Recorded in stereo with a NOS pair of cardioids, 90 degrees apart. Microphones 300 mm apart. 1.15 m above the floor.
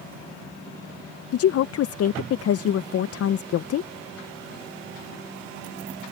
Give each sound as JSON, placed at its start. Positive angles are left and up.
{"t": 1.3, "sound": "a woman speaking", "azimuth_deg": 55}